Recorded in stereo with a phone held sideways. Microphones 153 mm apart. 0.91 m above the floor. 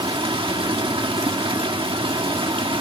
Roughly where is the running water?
Right.